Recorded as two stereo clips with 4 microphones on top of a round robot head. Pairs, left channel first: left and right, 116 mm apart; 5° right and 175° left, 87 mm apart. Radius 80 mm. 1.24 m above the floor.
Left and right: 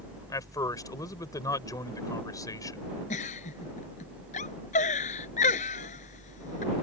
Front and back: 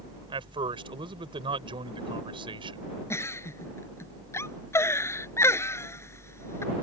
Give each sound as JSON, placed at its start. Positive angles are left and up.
{"t": 0.3, "sound": "a man speaking", "azimuth_deg": 150}
{"t": 3.1, "sound": "a giggle", "azimuth_deg": 50}